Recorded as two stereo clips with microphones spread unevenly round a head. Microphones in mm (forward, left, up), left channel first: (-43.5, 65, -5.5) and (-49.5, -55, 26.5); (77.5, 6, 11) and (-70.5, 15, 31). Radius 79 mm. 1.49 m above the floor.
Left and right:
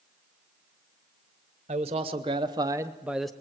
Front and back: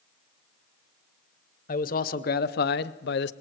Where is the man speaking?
40° right, 1.2 m; by 3.3 s straight ahead, 0.6 m.